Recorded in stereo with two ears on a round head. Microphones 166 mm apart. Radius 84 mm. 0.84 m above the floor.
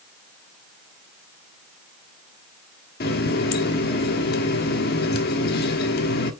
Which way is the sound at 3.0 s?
60° left (ahead or behind).